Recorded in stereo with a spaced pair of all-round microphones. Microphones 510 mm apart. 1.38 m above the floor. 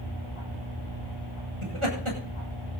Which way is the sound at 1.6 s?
75° right (ahead or behind).